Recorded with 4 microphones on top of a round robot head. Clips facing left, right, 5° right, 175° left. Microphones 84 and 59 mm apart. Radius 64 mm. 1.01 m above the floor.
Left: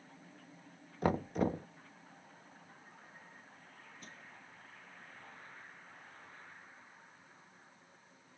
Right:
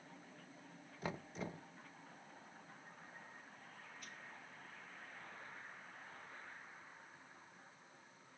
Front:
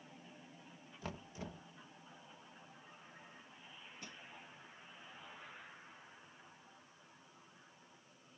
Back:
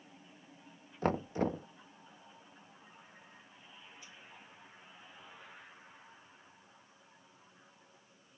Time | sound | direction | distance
1.0 | knocking | 130° left | ?
4.0 | crushing | 25° left | ?